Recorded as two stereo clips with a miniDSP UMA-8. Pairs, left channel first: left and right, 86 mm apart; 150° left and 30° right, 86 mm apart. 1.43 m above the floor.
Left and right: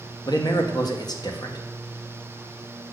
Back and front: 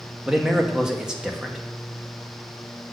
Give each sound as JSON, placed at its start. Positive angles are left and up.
{"t": 0.2, "sound": "a man speaking", "azimuth_deg": 50, "distance_m": 1.1}